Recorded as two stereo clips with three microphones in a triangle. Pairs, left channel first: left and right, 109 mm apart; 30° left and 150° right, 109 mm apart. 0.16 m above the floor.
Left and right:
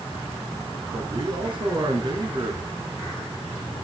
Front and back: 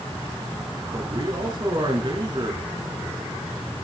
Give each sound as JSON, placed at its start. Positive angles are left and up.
{"t": 0.9, "sound": "a man speaking", "azimuth_deg": -115, "distance_m": 2.5}